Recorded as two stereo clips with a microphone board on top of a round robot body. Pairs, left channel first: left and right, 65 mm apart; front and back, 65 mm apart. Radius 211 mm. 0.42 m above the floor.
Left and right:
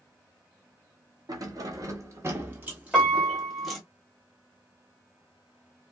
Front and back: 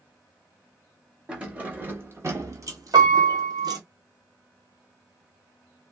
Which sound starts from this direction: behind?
A piano, at 2.9 s.